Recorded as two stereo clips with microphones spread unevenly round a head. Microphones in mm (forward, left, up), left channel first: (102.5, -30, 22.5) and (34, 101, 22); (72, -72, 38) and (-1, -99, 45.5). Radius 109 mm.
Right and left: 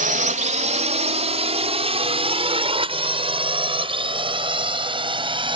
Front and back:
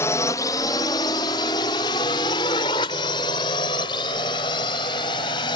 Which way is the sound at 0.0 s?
90° left.